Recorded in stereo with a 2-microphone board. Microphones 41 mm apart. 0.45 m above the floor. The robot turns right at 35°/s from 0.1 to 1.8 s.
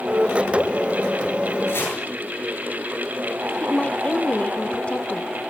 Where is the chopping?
80° left, 9 m.